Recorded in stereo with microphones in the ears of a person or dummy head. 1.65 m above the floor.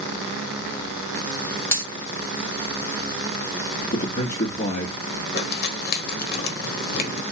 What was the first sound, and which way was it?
A dropped coin, 15° left (ahead or behind).